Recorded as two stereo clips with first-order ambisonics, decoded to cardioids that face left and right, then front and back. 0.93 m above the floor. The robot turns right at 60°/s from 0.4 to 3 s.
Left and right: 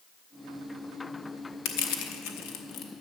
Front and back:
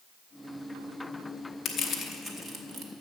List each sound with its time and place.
1.6 s crushing: 60° left, 1.0 m; by 2.9 s 135° left, 1.0 m